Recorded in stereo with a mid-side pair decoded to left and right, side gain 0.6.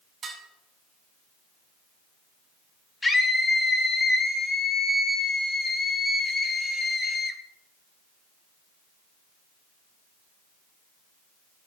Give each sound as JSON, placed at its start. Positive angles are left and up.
{"t": 0.2, "sound": "dishes clattering", "azimuth_deg": -35, "distance_m": 6.5}
{"t": 3.0, "sound": "a scream", "azimuth_deg": 20, "distance_m": 3.5}